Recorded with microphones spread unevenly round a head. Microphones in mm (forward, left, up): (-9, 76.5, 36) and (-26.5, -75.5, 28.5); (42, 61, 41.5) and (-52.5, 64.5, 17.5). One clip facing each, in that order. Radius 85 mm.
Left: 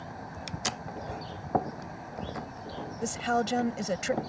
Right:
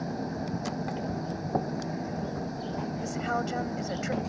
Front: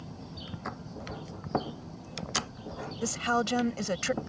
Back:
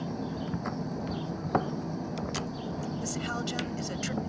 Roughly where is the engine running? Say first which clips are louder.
Right 9 dB, back 10 dB; behind right.